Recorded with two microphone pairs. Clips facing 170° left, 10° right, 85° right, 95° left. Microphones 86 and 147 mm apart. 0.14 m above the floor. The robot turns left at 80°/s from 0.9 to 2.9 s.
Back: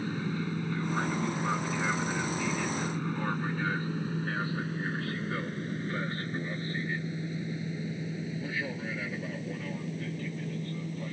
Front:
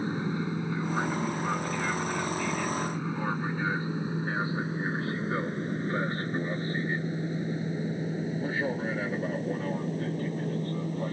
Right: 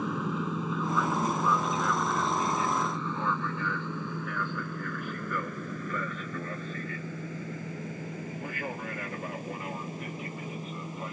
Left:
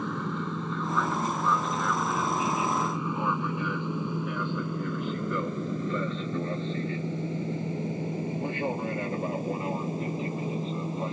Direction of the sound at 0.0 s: 5° right.